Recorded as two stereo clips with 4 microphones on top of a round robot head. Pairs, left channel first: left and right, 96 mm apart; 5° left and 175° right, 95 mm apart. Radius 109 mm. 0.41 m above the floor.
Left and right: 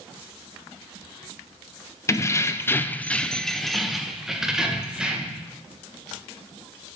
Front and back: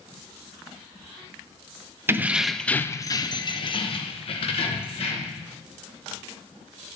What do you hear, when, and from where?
2.1 s keys jangling: 135° left, 0.7 m; by 5.4 s 10° right, 1.7 m